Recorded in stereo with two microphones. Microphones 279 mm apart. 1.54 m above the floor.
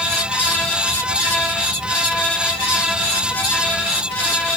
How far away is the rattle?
I don't hear a rattle.